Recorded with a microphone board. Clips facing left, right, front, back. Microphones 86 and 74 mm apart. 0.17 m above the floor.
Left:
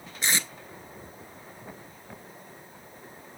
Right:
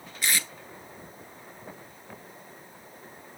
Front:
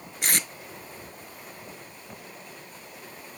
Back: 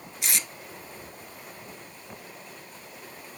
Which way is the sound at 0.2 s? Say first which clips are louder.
Left 1 dB, front 4 dB; 30° left.